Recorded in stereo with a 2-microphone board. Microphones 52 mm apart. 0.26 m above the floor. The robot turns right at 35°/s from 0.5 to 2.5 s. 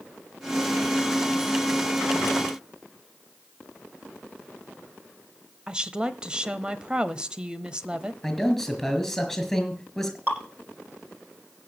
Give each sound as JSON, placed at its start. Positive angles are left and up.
{"t": 5.7, "sound": "a woman speaking", "side_deg": -20, "distance_m": 1.0}
{"t": 8.2, "sound": "a man speaking", "side_deg": 0, "distance_m": 4.5}
{"t": 10.3, "sound": "dripping", "side_deg": -40, "distance_m": 9.5}